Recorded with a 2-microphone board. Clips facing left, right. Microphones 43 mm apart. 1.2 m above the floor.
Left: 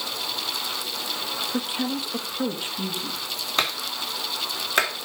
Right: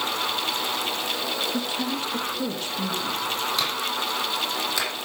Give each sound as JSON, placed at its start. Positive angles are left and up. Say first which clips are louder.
{"t": 1.5, "sound": "a woman speaking", "louder": "even", "side_deg": 20, "distance_m": 2.0}
{"t": 3.6, "sound": "a clap", "louder": "right 1 dB", "side_deg": 45, "distance_m": 3.5}